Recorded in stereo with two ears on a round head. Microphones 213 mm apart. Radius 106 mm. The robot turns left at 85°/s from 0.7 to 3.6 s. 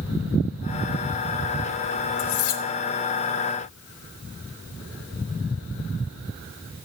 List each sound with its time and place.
2.2 s cutlery clinking: 120° left, 1.4 m; by 2.6 s 80° left, 1.4 m